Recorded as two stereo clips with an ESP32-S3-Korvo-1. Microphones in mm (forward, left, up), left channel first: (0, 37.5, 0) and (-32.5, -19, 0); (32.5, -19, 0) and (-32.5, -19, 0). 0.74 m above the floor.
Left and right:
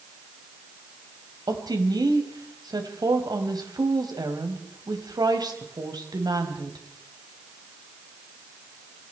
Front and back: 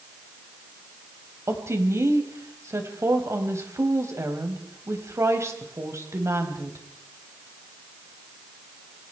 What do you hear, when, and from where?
1.5 s a woman speaking: 135° right, 4 m